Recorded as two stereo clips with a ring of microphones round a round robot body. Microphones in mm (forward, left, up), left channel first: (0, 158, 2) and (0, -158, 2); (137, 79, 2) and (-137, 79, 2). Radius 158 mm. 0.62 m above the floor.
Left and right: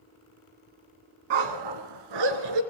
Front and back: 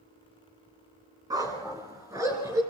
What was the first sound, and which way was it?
A dog barking, 100° right.